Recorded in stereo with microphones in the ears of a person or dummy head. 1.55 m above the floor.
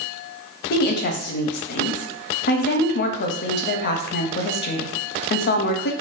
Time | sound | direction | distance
0.7 | a woman speaking | 50° left (ahead or behind) | 0.6 m